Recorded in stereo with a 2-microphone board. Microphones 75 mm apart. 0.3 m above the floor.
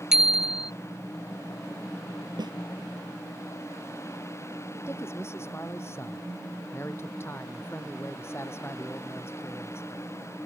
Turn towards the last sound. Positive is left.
turn(degrees=35)  # may be behind; listen again after turning